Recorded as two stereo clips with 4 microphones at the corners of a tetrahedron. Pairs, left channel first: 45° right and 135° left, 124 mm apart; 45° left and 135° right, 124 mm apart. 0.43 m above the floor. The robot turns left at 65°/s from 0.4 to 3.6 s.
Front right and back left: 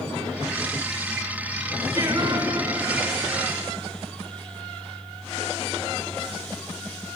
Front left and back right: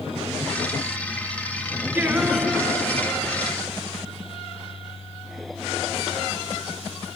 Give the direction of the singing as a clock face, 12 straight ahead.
7 o'clock.